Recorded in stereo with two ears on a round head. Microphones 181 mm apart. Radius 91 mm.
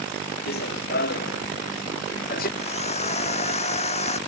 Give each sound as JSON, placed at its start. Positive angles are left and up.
{"t": 0.5, "sound": "running footsteps", "side_deg": 50}
{"t": 2.6, "sound": "a drill", "side_deg": 35}